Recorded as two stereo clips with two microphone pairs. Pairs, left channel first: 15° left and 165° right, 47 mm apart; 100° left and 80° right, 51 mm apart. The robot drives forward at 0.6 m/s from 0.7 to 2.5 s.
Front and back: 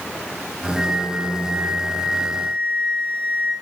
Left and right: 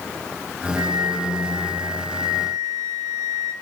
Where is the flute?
90° right, 5.5 m; by 3.5 s 100° right, 5.5 m.